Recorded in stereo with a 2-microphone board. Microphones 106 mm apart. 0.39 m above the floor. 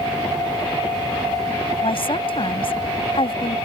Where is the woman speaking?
60° left (ahead or behind).